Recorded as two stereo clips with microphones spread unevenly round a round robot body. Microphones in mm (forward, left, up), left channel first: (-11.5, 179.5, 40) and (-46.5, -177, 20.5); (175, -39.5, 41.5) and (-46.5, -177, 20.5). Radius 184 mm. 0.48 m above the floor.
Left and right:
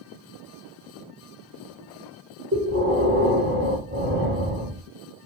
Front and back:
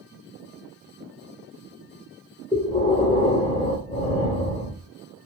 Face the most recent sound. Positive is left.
turn(degrees=-40)